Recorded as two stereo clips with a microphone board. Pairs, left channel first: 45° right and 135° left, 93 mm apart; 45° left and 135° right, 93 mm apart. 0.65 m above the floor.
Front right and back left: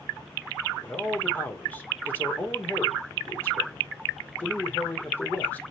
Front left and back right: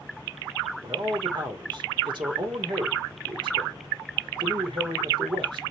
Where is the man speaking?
115° right, 1.8 m.